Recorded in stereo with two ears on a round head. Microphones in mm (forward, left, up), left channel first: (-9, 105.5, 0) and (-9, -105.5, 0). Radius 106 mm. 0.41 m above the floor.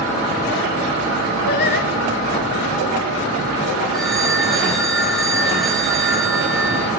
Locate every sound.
1.5 s singing: 45° left (ahead or behind), 2 m
3.9 s a phone ringing: centre (ahead or behind), 5 m